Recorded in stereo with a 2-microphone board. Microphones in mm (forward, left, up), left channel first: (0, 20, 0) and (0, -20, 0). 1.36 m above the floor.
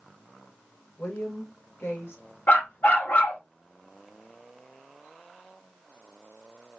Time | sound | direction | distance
1.0 | a woman speaking | 80° left | 2 m
2.5 | a dog barking | 55° left (ahead or behind) | 1.4 m